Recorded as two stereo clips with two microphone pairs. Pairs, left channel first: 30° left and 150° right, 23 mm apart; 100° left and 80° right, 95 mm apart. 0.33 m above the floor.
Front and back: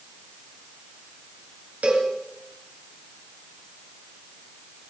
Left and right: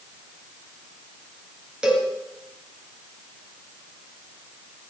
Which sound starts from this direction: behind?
A cowbell, at 1.8 s.